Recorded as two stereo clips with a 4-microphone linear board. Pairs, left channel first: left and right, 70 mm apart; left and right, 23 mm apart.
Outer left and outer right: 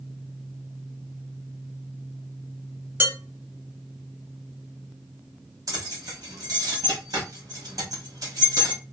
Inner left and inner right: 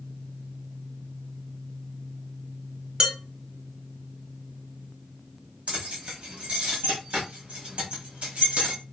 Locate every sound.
3.0 s dishes clattering: 30° right (ahead or behind), 0.9 m
5.7 s keys jangling: 60° right (ahead or behind), 1.3 m